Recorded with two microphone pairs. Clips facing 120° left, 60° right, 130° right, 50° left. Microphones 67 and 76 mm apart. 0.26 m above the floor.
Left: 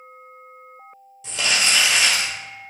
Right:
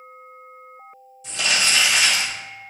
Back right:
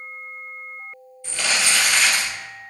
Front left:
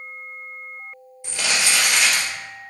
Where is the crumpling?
125° left, 2 m.